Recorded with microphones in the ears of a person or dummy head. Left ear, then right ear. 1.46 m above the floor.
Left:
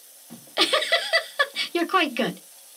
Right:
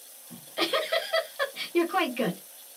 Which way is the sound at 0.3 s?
35° left (ahead or behind).